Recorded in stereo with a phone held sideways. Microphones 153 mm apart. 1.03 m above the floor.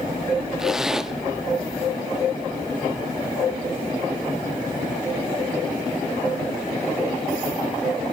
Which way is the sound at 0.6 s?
5° right (ahead or behind).